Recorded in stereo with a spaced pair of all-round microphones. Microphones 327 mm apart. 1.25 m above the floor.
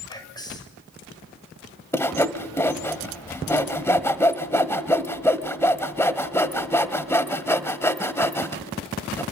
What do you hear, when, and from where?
0.1 s whispering: 10° left (ahead or behind), 7 m
1.9 s sawing: 10° left (ahead or behind), 1.2 m